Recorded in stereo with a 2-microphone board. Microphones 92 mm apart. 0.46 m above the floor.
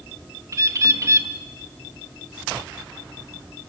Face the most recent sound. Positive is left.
turn(degrees=-35)  # may be behind; listen again after turning